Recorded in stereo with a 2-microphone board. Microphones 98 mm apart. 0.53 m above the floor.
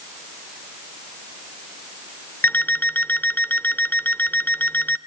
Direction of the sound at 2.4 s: 20° left (ahead or behind).